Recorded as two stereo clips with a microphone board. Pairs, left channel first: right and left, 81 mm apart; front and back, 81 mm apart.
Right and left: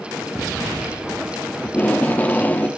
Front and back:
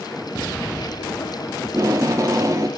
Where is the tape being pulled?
155° right, 0.7 m.